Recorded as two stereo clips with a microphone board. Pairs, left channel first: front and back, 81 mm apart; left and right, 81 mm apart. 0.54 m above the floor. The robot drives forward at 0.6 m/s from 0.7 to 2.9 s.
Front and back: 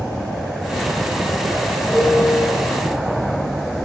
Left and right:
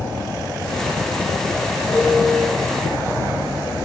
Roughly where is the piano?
Left.